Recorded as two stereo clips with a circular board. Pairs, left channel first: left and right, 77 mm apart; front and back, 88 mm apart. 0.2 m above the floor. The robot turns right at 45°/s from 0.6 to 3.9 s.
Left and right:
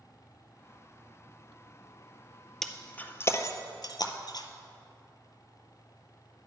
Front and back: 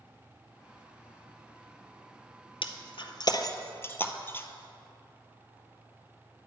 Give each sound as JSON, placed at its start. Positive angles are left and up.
{"t": 2.6, "sound": "breaking glass", "azimuth_deg": 5, "distance_m": 0.6}